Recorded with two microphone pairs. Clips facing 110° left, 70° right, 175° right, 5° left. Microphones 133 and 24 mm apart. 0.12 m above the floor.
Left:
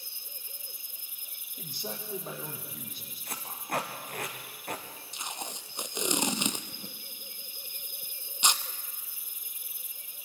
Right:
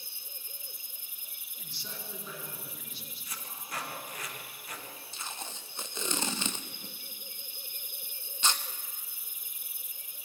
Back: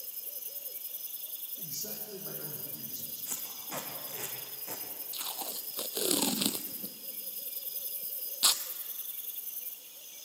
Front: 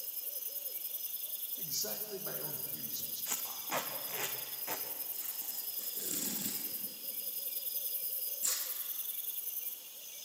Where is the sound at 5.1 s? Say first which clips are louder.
Left 4 dB, back 8 dB; straight behind, 0.8 m.